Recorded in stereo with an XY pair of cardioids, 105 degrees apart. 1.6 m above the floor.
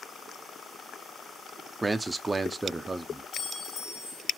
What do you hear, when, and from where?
1.8 s a man speaking: 15° right, 0.5 m
3.3 s a clink: 60° left, 1.5 m